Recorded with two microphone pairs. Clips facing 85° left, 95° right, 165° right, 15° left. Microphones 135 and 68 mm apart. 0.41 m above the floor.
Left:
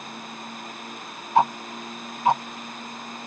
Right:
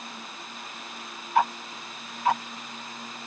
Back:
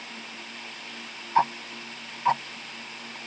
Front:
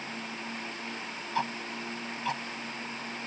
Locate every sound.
1.4 s ticking: 145° left